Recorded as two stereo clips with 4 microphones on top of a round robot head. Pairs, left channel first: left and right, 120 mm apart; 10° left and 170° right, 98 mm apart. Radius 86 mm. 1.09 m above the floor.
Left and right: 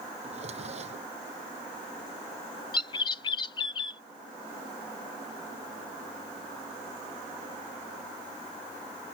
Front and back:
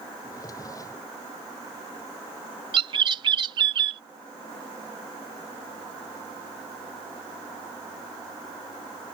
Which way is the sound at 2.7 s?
150° left.